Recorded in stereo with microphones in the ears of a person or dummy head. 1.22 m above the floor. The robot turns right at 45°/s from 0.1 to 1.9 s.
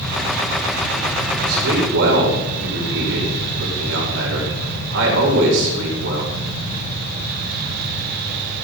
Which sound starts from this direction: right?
A man speaking, at 1.5 s.